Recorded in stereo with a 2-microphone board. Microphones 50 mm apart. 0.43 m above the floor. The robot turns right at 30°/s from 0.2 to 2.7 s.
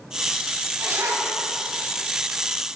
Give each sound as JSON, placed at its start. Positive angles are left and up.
{"t": 0.8, "sound": "a zipper", "side_deg": -75, "distance_m": 1.7}